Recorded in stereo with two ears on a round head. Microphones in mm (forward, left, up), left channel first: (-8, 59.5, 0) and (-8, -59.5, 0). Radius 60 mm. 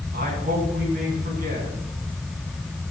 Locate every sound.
0.1 s a man speaking: 60° right (ahead or behind), 7.5 m